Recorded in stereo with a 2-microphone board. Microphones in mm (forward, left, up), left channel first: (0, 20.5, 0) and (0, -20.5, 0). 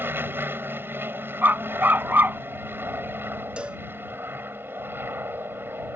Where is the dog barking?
55° right (ahead or behind).